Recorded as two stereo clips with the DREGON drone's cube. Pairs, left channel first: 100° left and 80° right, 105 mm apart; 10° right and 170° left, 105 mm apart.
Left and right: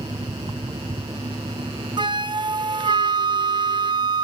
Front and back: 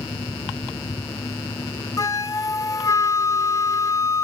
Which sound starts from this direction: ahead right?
A flute, at 2.0 s.